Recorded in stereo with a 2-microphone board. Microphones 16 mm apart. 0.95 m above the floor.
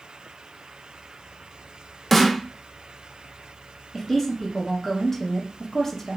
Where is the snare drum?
5° left (ahead or behind), 0.5 m.